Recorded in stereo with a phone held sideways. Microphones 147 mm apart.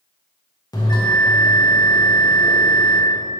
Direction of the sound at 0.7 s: 30° left (ahead or behind).